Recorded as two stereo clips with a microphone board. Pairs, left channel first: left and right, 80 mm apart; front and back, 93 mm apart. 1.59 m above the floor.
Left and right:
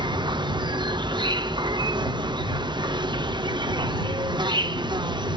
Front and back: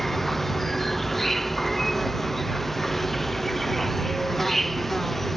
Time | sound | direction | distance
0.0 | an insect | 85° right | ?